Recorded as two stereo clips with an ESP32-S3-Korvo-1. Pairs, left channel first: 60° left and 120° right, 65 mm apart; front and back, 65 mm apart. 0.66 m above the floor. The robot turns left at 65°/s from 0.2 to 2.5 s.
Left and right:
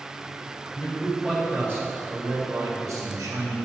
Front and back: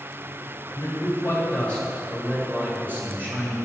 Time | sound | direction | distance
0.7 | a man speaking | 10° right | 2.5 m